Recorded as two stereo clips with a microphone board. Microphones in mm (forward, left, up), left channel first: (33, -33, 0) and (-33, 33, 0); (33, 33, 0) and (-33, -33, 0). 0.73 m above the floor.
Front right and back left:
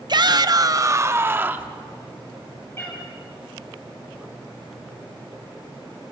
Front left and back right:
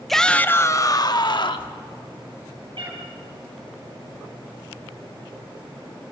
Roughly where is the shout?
Behind left.